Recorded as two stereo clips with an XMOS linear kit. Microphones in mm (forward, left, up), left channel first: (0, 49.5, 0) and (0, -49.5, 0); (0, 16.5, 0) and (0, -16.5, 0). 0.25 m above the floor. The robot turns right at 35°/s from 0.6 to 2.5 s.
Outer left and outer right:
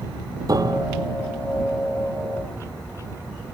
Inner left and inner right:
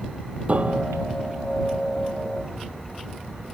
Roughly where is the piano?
Right.